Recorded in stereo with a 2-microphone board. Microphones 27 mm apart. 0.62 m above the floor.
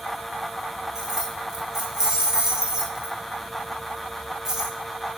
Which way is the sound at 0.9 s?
15° right (ahead or behind).